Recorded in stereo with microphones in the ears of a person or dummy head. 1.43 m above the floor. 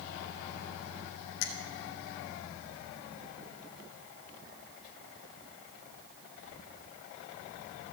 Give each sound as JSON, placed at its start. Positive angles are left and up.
{"t": 1.4, "sound": "a finger snap", "side_deg": 75, "distance_m": 1.7}